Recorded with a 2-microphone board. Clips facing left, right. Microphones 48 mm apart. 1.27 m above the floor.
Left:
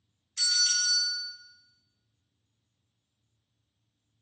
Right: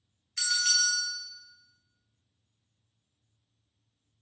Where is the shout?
No shout in this recording.